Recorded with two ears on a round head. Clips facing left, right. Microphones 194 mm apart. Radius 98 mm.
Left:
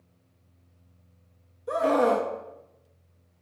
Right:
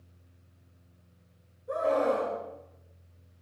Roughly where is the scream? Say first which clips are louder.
Left 4 dB; left.